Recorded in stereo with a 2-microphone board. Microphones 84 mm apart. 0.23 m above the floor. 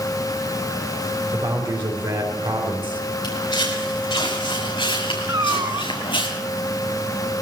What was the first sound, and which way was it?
A man speaking, 65° right (ahead or behind).